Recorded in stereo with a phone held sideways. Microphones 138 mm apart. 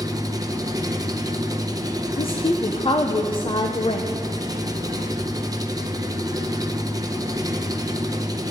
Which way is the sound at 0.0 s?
25° right (ahead or behind).